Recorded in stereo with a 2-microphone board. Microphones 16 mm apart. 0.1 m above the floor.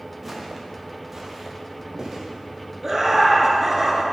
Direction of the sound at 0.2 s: 15° right (ahead or behind).